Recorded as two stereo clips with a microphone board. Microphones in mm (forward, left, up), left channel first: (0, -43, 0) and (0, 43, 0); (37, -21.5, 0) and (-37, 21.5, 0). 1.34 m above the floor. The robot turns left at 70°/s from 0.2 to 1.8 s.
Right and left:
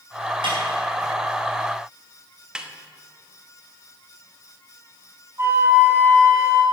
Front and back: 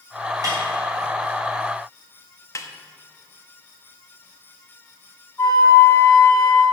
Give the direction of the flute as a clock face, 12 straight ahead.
11 o'clock.